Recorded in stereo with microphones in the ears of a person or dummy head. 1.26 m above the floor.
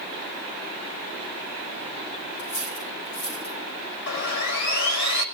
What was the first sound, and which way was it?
Cutlery clinking, 65° left (ahead or behind).